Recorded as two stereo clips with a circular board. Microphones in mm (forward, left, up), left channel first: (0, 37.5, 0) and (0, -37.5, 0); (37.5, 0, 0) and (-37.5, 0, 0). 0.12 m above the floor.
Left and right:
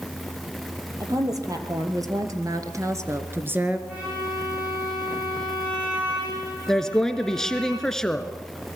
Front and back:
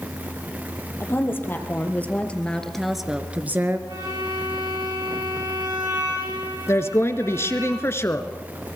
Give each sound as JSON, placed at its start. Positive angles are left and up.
{"t": 1.0, "sound": "a woman speaking", "azimuth_deg": -55, "distance_m": 3.5}
{"t": 3.9, "sound": "a violin", "azimuth_deg": -160, "distance_m": 8.5}
{"t": 6.7, "sound": "a woman speaking", "azimuth_deg": 10, "distance_m": 1.6}